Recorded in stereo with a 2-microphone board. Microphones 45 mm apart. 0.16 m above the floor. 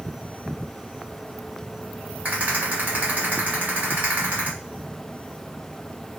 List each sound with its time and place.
2.2 s a rattle: 35° right (ahead or behind), 1.7 m